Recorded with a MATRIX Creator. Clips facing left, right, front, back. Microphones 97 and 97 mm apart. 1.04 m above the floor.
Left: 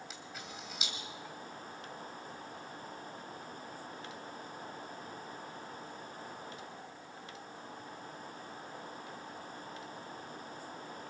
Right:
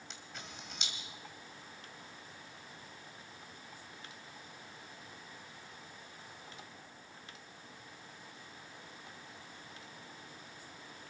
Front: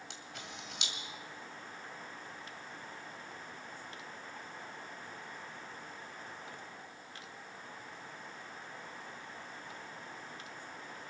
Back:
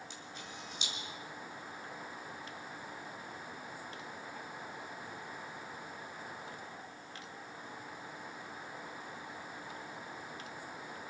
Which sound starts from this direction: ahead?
A camera shutter, at 0.1 s.